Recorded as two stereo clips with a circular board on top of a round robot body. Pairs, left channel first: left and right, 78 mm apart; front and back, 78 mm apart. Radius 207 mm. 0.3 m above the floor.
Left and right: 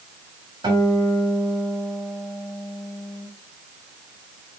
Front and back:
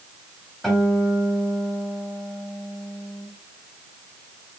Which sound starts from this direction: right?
A guitar, at 0.6 s.